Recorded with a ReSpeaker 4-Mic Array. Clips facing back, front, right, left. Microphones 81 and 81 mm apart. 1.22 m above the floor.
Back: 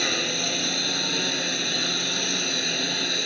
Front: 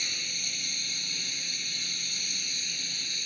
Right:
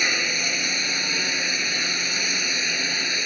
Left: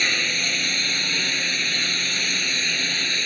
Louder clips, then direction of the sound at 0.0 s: Back 14 dB, even; 170° right.